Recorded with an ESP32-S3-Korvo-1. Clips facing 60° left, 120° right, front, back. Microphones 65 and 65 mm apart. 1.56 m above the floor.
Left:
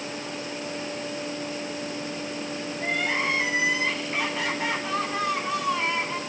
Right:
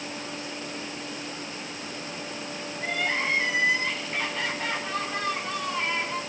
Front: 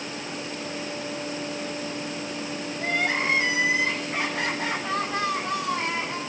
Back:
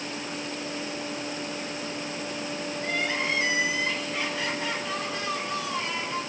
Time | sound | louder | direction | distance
2.8 | crying | left 1 dB, front 4 dB | 20° right | 8 m